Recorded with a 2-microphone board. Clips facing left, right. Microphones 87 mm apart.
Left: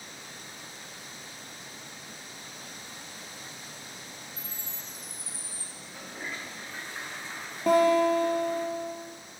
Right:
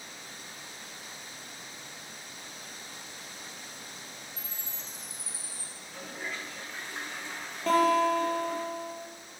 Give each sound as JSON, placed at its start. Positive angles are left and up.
{"t": 4.4, "sound": "a chime", "side_deg": 60, "distance_m": 5.0}
{"t": 5.8, "sound": "a toilet flushing", "side_deg": 10, "distance_m": 5.0}
{"t": 7.7, "sound": "a guitar", "side_deg": 15, "distance_m": 4.0}